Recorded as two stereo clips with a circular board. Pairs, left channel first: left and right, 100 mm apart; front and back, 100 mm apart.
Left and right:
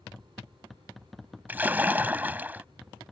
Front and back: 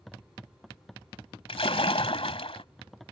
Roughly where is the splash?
Ahead.